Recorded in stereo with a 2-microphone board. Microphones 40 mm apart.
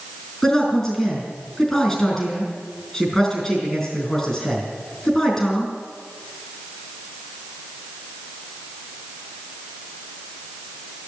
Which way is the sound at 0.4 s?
15° left (ahead or behind).